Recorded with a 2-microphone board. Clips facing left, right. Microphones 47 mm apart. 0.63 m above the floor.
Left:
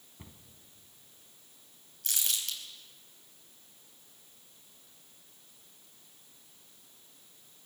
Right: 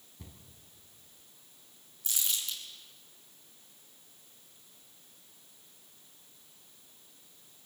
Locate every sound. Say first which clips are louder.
0.2 s a cupboard door: even; 30° left (ahead or behind), 2 m
2.0 s crumpling: left 1 dB; 60° left (ahead or behind), 4 m